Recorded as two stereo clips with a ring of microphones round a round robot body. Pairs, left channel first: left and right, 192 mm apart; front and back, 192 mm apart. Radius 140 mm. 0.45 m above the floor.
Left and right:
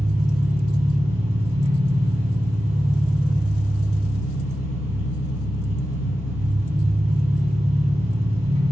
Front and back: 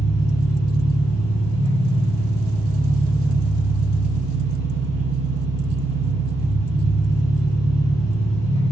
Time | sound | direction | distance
0.0 | an engine running | 35° right | 2.5 m